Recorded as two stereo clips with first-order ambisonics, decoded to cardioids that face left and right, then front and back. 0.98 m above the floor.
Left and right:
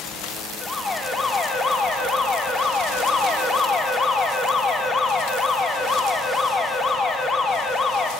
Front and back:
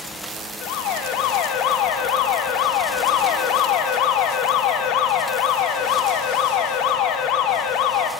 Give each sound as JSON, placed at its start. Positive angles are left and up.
{"t": 0.6, "sound": "an alarm", "azimuth_deg": 20, "distance_m": 3.0}